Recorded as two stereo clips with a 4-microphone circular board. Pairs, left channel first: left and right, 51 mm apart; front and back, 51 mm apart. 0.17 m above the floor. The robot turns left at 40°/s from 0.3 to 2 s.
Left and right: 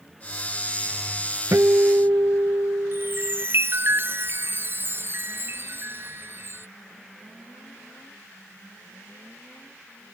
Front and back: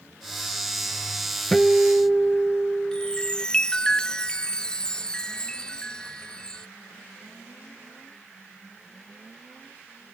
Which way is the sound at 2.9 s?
70° right.